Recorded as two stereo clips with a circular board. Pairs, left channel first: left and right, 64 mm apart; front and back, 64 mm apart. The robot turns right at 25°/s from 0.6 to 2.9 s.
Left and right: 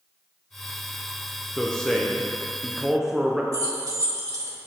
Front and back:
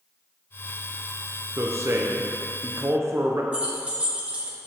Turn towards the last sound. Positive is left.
turn(degrees=-110)